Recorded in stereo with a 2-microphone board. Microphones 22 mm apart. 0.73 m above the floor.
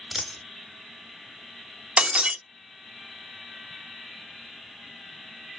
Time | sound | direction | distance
0.1 | a dropped coin | 5° right (ahead or behind) | 1.8 m
2.0 | breaking glass | 50° right (ahead or behind) | 0.9 m